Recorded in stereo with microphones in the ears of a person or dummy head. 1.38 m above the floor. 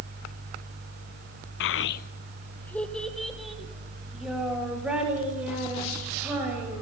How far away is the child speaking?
About 0.6 m.